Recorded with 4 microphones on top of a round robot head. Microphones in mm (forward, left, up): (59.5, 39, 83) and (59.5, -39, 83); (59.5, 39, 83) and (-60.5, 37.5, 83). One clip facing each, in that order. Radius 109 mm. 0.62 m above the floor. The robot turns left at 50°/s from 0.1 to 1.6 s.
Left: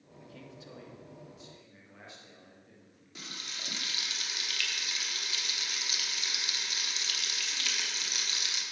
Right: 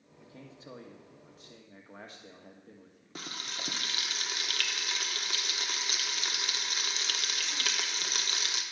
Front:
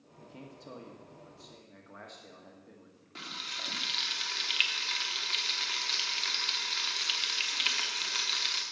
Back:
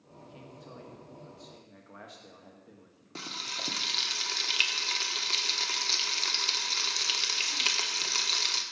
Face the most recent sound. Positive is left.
turn(degrees=-130)